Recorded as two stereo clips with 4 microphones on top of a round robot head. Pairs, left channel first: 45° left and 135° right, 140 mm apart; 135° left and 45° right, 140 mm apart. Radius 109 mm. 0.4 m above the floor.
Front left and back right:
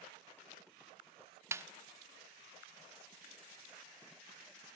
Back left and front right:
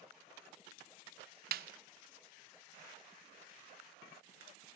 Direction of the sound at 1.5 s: 60° right.